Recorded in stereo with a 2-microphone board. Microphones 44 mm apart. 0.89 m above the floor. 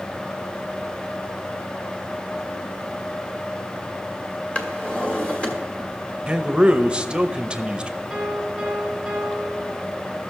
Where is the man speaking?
20° right (ahead or behind), 0.8 m.